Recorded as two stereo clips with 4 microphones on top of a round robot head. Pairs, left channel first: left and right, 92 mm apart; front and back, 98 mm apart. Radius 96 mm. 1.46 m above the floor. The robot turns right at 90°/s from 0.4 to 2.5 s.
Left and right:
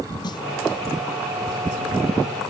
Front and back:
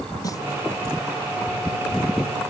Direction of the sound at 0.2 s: 55° left.